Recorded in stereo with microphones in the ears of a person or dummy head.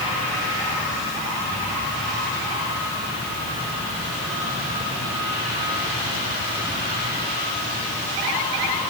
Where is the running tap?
No running tap in this recording.